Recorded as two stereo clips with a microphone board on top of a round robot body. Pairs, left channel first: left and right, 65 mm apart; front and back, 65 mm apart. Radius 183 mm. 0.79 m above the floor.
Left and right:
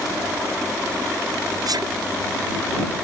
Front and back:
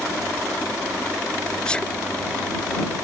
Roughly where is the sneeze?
Right.